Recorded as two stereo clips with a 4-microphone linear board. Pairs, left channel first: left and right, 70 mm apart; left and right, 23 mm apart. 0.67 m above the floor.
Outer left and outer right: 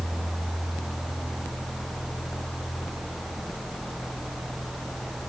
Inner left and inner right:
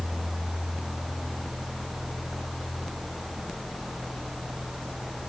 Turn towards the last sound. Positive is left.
No sound to turn to.